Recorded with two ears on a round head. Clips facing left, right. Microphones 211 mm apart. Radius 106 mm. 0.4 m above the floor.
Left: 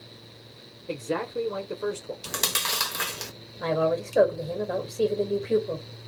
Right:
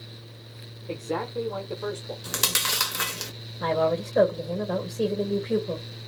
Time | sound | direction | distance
0.9 | a man speaking | 20° left (ahead or behind) | 0.8 m
2.2 | chewing | 10° right (ahead or behind) | 0.7 m
3.6 | a woman speaking | centre (ahead or behind) | 1.9 m